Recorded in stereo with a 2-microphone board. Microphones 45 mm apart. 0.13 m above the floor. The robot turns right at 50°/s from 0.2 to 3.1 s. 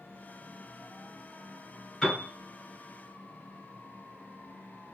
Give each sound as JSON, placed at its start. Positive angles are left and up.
{"t": 2.0, "sound": "a piano", "side_deg": 5, "distance_m": 1.6}